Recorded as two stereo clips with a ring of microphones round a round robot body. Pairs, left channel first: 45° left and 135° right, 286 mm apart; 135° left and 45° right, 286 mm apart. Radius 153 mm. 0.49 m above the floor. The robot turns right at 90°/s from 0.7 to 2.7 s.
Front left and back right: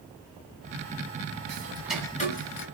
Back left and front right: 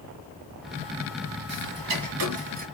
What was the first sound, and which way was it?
Ticking, 85° right.